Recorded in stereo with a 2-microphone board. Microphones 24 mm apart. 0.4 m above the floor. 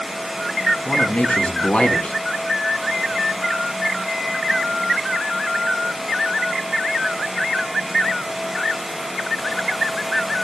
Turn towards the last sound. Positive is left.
turn(degrees=70)  # may be behind; listen again after turning